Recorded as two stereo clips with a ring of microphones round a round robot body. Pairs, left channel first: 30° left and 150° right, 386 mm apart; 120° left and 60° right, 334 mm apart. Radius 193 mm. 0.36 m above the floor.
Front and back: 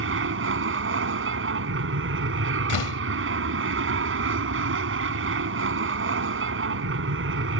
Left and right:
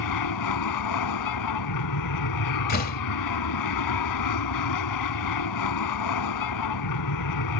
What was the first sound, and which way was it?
An aircraft, 155° left.